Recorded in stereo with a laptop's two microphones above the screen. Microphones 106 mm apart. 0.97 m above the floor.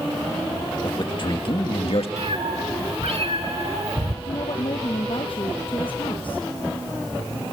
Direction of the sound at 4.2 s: 55° left (ahead or behind).